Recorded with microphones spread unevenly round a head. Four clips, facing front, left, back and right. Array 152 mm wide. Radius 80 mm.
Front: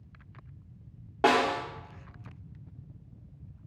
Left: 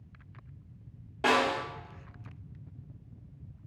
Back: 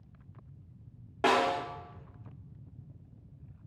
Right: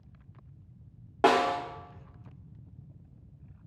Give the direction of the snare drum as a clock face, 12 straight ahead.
2 o'clock.